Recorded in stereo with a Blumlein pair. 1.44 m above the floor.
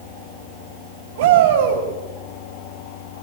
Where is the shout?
55° right, 8 m.